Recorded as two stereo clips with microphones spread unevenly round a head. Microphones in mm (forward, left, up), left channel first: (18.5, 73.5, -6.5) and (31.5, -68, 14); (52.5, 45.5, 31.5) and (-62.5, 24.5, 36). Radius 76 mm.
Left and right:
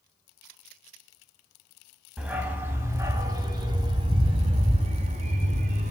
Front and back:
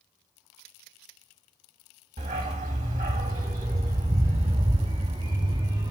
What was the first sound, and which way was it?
A dog barking, 160° right.